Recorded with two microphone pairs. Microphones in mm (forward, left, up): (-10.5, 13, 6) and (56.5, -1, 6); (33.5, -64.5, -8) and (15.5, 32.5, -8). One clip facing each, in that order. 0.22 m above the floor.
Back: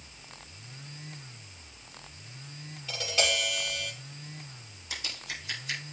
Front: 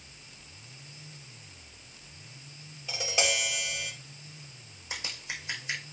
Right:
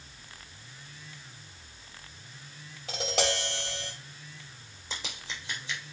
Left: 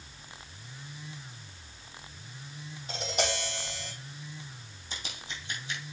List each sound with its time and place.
2.9 s tapping: 90° right, 6 m
4.9 s scissors: 80° right, 4 m